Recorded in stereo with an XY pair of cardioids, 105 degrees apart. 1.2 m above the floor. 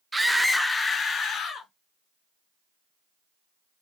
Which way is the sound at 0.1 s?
15° right.